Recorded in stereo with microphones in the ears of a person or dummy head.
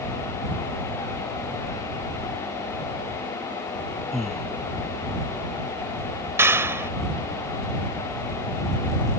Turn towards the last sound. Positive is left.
turn(degrees=-5)  # may be behind; listen again after turning